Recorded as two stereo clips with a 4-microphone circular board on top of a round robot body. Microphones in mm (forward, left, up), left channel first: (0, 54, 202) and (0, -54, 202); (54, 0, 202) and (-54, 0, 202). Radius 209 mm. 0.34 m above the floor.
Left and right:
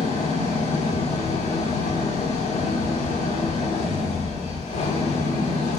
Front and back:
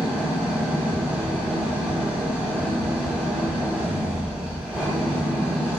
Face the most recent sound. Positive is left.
turn(degrees=100)